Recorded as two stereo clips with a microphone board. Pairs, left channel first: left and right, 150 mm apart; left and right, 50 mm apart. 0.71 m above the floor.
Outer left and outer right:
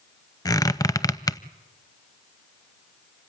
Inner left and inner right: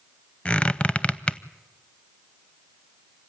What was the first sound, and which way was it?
A squeak, 25° left (ahead or behind).